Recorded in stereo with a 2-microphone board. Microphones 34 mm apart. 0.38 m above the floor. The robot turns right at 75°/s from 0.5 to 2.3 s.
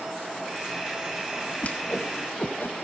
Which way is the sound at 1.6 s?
45° left (ahead or behind).